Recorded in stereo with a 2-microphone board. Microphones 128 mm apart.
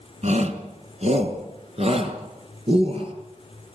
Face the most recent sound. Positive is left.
turn(degrees=-45)  # may be behind; listen again after turning